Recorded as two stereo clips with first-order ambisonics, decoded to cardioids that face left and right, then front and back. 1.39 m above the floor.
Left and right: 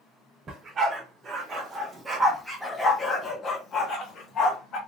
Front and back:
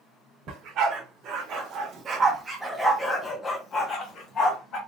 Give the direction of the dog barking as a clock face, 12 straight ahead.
5 o'clock.